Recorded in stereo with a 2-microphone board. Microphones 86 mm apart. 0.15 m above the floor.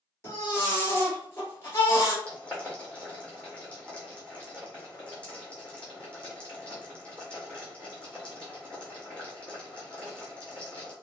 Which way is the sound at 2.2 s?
10° left (ahead or behind).